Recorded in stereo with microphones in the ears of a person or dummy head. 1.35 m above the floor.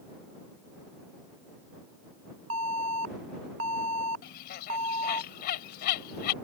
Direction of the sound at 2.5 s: 75° right (ahead or behind).